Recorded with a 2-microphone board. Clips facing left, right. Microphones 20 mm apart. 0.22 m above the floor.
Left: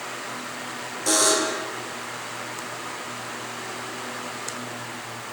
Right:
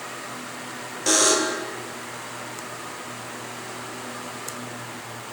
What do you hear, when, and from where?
1.1 s a buzzer: 30° right (ahead or behind), 5.5 m